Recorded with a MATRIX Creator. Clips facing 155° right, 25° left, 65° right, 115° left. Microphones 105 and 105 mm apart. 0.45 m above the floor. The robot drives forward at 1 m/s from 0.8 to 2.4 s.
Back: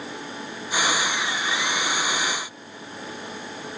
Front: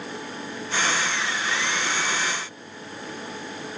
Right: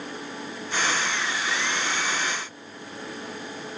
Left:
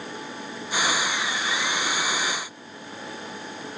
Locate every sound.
Only background noise.